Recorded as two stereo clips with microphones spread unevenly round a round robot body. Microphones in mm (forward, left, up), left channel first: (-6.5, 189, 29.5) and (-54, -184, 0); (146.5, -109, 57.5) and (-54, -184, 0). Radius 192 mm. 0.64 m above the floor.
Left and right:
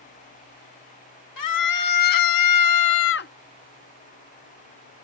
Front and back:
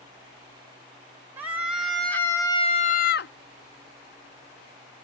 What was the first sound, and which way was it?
A scream, 120° left.